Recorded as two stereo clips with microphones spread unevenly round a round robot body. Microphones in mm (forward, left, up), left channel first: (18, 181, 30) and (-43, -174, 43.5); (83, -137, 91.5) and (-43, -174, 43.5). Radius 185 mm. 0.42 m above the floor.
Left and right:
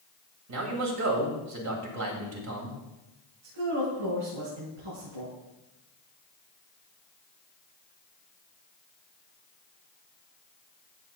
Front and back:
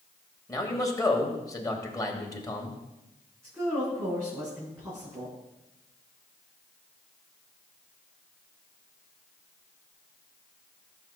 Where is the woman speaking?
95° right, 4.5 m.